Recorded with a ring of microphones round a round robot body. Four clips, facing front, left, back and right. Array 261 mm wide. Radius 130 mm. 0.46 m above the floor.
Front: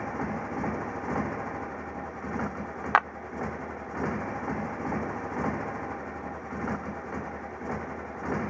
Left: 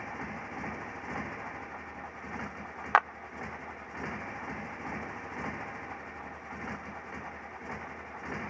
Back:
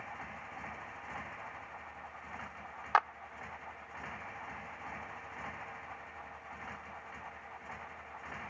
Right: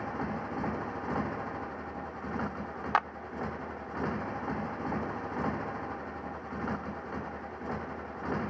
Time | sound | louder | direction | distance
0.0 | a motorcycle | right 5 dB, front 14 dB | 25° right | ?
2.9 | a clap | left 4 dB, front 5 dB | 25° left | ?